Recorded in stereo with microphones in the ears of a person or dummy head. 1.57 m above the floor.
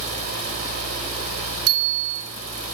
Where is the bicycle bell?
85° right, 5.5 m.